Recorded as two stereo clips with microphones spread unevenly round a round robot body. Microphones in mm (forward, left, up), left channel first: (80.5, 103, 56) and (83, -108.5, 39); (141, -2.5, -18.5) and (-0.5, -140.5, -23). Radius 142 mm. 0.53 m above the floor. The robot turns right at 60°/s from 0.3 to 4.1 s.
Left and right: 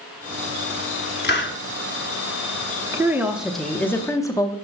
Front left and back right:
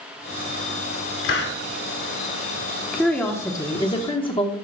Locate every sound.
1.2 s a hiss: 55° left, 1.0 m; by 1.6 s 75° left, 1.0 m
2.9 s a woman speaking: 45° right, 0.9 m; by 4.5 s 25° left, 0.9 m